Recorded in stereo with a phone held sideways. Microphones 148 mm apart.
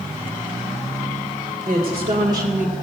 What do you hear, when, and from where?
1.7 s a woman speaking: 55° right (ahead or behind), 2 m; by 2.8 s 10° right (ahead or behind), 1.9 m